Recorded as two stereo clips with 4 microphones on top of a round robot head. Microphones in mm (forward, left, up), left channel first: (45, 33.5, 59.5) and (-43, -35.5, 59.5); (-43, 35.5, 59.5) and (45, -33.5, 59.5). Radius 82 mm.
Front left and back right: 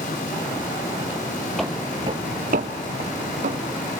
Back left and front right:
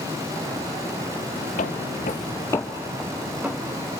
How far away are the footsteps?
About 1.2 m.